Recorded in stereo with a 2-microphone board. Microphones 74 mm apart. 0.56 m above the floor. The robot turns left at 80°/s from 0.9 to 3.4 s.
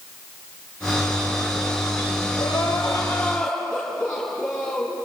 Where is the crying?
90° left, 5.5 m; by 5.0 s 10° left, 5.5 m.